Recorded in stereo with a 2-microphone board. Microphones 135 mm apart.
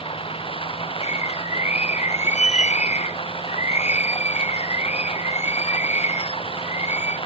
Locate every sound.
0.0 s running water: 40° left (ahead or behind)
1.0 s a bird: 60° left (ahead or behind)